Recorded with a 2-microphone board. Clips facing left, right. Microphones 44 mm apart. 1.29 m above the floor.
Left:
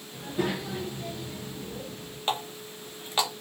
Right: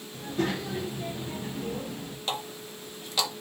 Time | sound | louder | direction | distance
0.1 | a child speaking | even | 15° left (ahead or behind) | 0.8 m
2.3 | a running tap | left 4 dB | 30° left (ahead or behind) | 0.6 m